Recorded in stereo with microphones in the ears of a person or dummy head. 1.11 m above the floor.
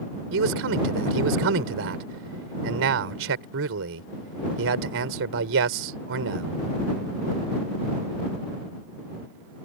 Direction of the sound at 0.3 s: 70° right (ahead or behind).